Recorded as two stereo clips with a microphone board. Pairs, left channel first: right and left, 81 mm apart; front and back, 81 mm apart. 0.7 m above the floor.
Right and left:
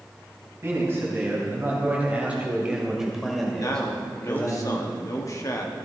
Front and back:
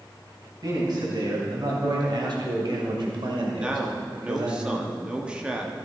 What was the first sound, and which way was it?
A man speaking, 145° left.